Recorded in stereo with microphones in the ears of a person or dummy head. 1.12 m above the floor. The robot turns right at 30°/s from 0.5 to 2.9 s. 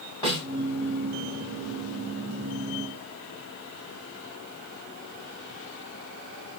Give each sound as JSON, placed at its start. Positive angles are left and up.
{"t": 0.2, "sound": "a snare drum", "side_deg": 30, "distance_m": 2.0}